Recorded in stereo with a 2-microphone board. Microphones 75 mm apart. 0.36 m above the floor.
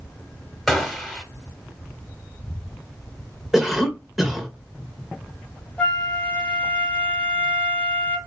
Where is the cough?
5° right (ahead or behind), 1.3 m.